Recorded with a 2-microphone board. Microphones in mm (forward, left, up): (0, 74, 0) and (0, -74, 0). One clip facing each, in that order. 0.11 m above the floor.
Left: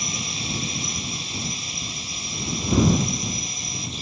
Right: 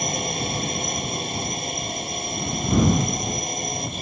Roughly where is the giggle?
I don't hear a giggle.